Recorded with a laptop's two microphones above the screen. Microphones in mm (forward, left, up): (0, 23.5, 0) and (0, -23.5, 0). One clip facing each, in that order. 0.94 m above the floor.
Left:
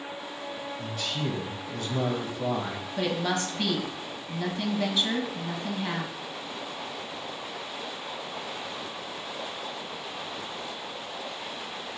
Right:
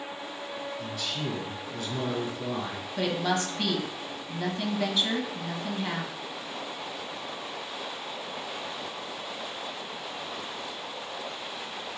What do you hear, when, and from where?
0.8 s a man speaking: 45° left (ahead or behind), 0.8 m
3.0 s a woman speaking: 5° right (ahead or behind), 0.9 m